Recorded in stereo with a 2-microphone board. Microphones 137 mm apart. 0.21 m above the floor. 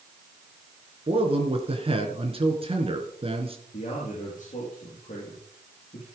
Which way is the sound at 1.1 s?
45° right (ahead or behind).